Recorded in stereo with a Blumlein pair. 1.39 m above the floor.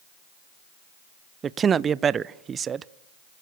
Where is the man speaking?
20° right, 0.6 m.